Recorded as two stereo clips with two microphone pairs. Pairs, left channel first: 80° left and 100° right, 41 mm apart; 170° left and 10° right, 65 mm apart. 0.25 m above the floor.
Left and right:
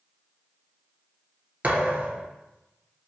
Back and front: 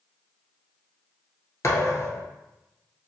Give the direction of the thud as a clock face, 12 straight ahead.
5 o'clock.